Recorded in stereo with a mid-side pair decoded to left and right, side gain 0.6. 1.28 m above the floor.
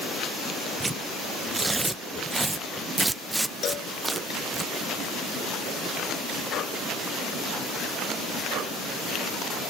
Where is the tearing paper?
15° right.